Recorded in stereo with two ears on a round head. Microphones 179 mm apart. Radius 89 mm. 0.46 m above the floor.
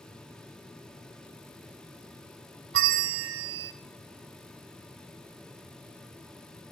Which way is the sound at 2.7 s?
65° right (ahead or behind).